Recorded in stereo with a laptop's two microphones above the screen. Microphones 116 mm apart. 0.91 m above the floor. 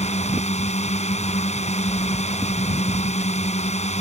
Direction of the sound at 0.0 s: 75° left (ahead or behind).